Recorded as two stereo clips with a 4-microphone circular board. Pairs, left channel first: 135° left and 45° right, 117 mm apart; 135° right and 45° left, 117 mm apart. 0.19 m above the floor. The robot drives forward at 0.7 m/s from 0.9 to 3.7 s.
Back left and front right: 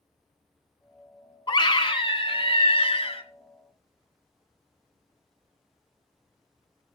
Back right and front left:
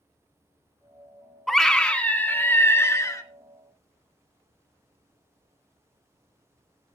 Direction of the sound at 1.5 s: 135° left.